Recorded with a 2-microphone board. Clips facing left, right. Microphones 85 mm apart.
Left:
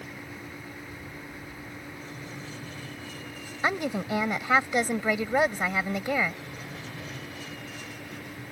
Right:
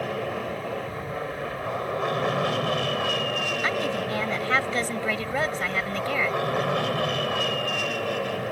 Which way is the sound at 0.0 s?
70° right (ahead or behind).